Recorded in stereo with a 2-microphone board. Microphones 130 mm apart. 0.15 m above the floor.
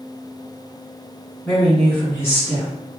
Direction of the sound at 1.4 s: 10° left (ahead or behind).